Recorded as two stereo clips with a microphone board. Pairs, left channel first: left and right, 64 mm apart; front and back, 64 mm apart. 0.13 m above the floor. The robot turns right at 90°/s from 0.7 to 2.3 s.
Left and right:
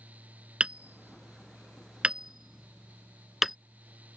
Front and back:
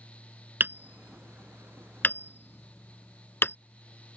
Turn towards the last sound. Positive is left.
turn(degrees=-5)